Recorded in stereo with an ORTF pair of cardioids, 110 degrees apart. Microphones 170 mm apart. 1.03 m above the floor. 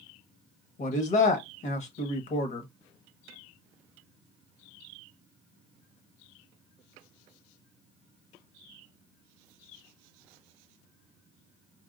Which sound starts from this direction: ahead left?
A man speaking, at 0.8 s.